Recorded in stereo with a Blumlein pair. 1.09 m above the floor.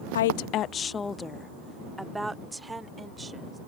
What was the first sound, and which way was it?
A woman speaking, 65° left.